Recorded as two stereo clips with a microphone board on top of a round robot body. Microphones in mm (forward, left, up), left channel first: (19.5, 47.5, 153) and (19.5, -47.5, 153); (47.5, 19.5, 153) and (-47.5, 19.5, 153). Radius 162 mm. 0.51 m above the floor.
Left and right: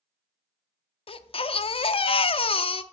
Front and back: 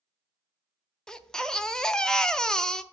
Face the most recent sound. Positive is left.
turn(degrees=85)